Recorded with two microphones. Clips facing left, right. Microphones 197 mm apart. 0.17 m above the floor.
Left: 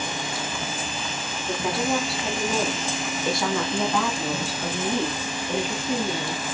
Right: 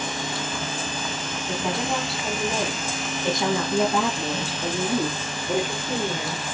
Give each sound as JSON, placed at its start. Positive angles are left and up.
{"t": 1.5, "sound": "a woman speaking", "side_deg": 10, "distance_m": 1.4}